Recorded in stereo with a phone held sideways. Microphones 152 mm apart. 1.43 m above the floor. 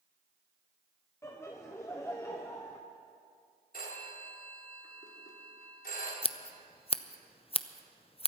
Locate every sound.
1.2 s laughter: 15° left (ahead or behind), 0.9 m
3.7 s a phone ringing: 70° left (ahead or behind), 3 m
6.2 s scissors: 35° left (ahead or behind), 0.5 m